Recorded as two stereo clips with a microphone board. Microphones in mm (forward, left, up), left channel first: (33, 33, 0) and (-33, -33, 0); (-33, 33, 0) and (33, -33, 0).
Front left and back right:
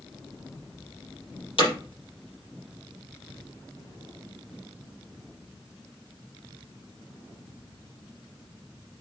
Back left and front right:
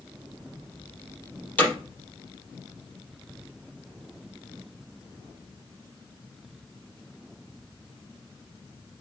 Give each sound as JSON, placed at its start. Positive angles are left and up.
{"t": 1.6, "sound": "hammering", "azimuth_deg": 65, "distance_m": 4.5}